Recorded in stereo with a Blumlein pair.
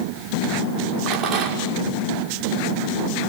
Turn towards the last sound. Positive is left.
turn(degrees=-35)